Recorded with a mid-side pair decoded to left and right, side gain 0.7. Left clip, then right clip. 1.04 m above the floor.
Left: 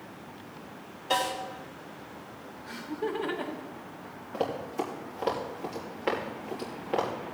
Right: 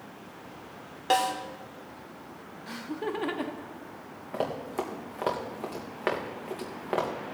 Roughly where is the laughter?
Ahead right.